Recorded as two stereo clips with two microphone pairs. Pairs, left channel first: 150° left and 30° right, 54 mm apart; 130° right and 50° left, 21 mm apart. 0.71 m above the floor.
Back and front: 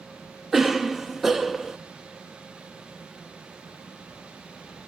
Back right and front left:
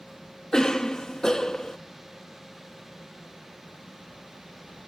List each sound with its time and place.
0.5 s a cough: 110° right, 0.5 m